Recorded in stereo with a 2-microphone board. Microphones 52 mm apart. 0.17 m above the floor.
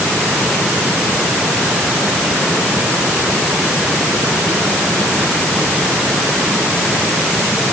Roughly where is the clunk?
No clunk in this recording.